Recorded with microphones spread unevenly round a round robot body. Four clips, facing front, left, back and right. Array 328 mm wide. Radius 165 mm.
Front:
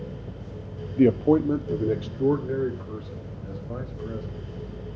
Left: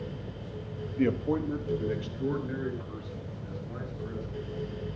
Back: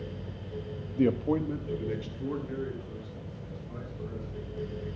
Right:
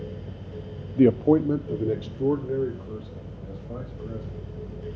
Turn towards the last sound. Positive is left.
turn(degrees=-40)